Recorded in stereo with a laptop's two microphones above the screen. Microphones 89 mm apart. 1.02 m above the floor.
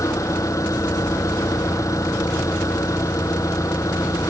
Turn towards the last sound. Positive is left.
turn(degrees=35)  # may be behind; listen again after turning